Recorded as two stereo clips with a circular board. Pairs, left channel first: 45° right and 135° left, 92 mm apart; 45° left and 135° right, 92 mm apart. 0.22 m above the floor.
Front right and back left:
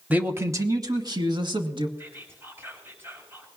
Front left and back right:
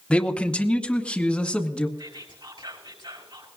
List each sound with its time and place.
0.1 s a man speaking: 100° left, 1.0 m; by 1.9 s 125° left, 2 m
2.0 s whispering: 160° right, 4.5 m